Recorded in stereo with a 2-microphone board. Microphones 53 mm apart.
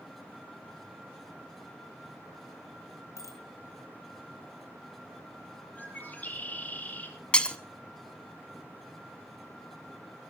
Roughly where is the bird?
Left.